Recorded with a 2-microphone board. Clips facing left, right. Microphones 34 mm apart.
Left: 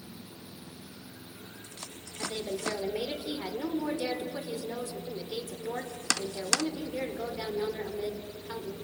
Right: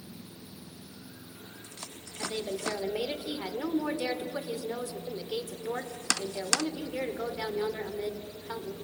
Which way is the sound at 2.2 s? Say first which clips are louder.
Even; 35° right (ahead or behind).